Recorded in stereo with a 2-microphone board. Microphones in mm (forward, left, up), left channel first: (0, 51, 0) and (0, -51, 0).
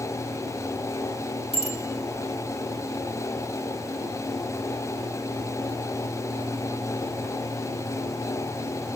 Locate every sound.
1.5 s a bicycle bell: 65° left (ahead or behind), 7 m